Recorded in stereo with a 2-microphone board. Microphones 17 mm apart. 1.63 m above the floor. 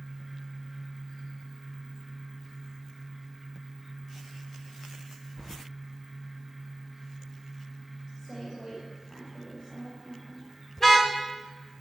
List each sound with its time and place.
5.4 s keys jangling: 15° left (ahead or behind), 0.6 m
8.2 s a woman speaking: 55° left (ahead or behind), 9.5 m
10.8 s a car horn: 20° left (ahead or behind), 3.5 m